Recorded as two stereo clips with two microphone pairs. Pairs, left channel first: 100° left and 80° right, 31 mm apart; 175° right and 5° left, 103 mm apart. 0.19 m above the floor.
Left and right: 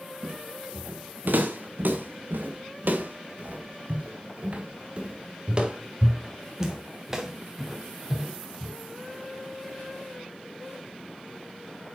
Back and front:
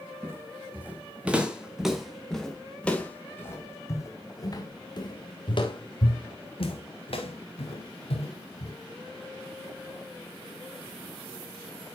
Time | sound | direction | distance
0.2 | footsteps | 60° right | 2.5 m